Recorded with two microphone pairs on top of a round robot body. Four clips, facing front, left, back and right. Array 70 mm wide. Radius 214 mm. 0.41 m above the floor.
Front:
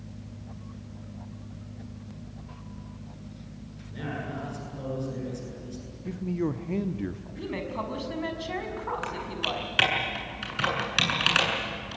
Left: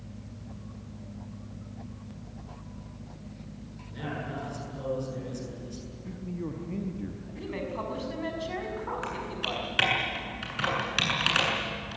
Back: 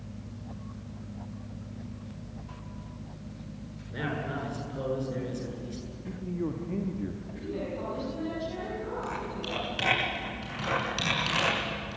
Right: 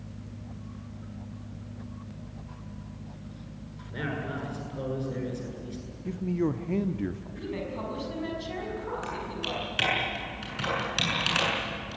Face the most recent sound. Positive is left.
turn(degrees=30)